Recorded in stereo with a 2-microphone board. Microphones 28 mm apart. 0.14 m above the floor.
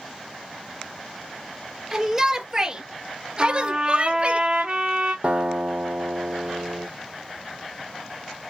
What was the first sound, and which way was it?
A shout, 10° right (ahead or behind).